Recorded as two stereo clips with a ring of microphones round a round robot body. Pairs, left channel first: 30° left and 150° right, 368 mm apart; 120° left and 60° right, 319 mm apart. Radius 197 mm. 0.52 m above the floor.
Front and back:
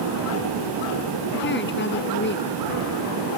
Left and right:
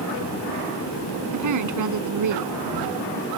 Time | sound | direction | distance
1.3 | a woman speaking | 30° right | ?